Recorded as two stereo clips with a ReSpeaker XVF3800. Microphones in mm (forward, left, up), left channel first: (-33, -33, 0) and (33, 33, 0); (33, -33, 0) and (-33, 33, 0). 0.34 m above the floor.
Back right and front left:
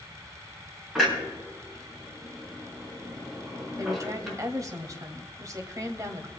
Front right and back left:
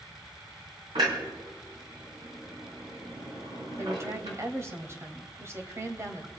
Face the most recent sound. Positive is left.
turn(degrees=85)